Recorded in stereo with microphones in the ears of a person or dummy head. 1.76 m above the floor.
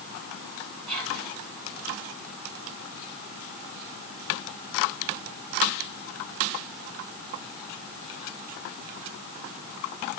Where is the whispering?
75° right (ahead or behind), 7.5 m.